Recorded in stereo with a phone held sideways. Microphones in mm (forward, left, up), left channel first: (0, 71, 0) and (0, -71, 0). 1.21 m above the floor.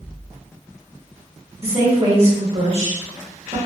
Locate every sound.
1.6 s a woman speaking: 45° right (ahead or behind), 1.3 m